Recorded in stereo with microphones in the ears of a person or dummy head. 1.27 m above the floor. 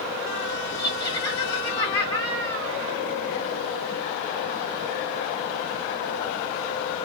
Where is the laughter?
25° left (ahead or behind), 2.5 m.